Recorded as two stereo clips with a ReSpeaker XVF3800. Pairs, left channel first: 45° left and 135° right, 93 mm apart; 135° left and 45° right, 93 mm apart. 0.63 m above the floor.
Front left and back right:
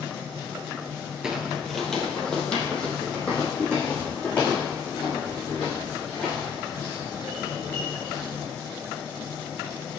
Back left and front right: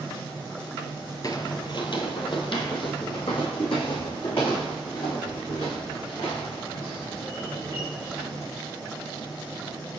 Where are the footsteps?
145° left, 0.7 m; by 8.5 s 120° left, 6 m.